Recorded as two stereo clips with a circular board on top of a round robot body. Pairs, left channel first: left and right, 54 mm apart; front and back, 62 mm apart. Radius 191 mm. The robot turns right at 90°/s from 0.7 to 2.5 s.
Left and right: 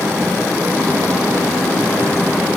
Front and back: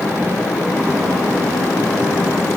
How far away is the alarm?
No alarm in this recording.